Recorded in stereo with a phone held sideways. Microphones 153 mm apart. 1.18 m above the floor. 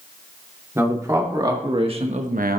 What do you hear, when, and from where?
0.8 s a man speaking: 15° right (ahead or behind), 3 m; by 2.6 s 80° right, 0.9 m